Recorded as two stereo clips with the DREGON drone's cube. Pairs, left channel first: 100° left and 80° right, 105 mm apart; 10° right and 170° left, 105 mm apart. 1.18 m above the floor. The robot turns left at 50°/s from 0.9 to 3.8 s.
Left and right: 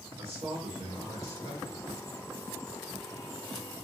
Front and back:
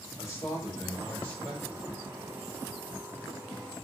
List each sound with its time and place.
0.2 s a man speaking: 70° right, 1.7 m; by 2.0 s 125° right, 1.7 m